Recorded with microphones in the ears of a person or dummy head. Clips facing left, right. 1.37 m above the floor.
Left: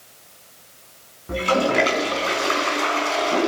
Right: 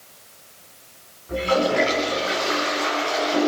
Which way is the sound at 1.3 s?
55° left (ahead or behind).